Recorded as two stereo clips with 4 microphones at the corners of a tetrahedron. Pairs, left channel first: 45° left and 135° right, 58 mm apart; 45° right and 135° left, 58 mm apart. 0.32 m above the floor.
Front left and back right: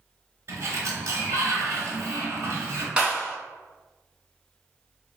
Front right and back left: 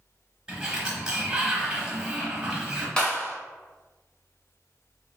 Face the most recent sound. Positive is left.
turn(degrees=-95)